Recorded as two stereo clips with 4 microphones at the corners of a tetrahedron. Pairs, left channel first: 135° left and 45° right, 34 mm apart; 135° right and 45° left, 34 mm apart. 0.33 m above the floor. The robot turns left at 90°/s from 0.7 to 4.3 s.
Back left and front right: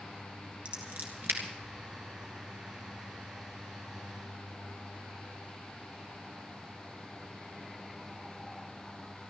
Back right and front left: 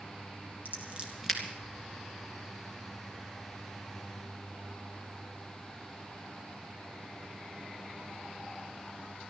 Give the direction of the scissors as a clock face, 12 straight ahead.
12 o'clock.